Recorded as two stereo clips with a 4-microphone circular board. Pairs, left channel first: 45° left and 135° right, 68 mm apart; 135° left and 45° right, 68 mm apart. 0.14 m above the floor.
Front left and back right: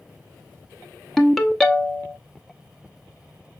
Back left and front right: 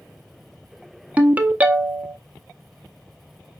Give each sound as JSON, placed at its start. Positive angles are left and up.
{"t": 1.2, "sound": "a ringtone", "azimuth_deg": -30, "distance_m": 0.5}